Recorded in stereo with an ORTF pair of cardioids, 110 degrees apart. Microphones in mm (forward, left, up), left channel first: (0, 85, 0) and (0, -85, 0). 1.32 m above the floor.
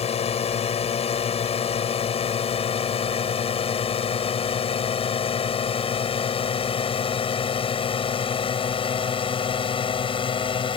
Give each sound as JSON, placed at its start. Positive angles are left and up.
{"t": 0.0, "sound": "a drone", "azimuth_deg": 40}